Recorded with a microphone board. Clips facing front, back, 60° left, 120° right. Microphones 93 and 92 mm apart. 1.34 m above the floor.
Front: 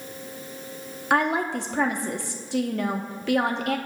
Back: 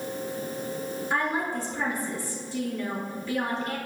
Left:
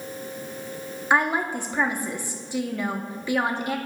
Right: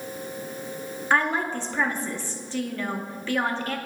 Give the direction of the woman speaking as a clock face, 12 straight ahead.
1 o'clock.